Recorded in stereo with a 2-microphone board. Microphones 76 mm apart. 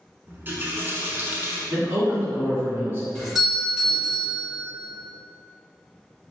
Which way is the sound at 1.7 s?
30° right (ahead or behind).